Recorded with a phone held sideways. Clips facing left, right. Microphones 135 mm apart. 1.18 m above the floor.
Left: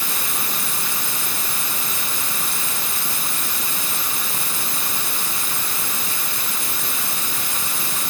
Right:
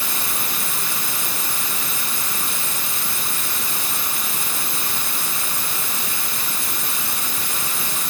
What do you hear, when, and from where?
Only background noise.